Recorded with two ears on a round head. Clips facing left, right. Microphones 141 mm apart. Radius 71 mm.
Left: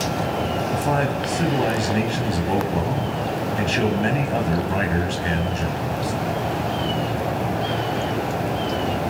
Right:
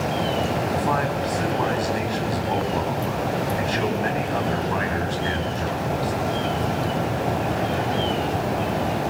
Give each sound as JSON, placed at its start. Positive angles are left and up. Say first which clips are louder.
{"t": 0.7, "sound": "a man speaking", "louder": "left 1 dB", "side_deg": 30, "distance_m": 4.0}